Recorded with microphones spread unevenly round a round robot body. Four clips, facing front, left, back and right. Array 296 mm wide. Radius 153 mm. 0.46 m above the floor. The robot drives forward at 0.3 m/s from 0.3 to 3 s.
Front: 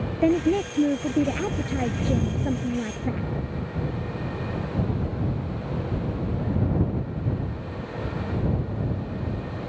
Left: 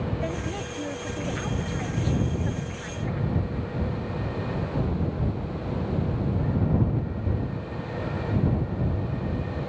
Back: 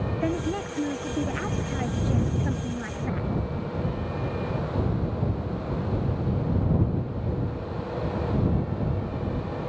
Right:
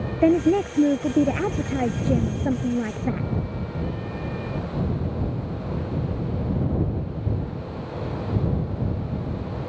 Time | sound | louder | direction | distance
0.2 | a woman speaking | right 13 dB, front 9 dB | 65° right | ?